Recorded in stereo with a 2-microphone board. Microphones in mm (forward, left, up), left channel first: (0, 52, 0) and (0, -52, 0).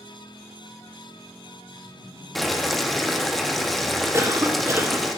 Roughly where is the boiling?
Centre.